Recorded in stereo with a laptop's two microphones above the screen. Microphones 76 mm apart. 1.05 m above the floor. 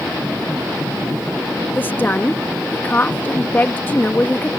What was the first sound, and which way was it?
A woman speaking, 25° left (ahead or behind).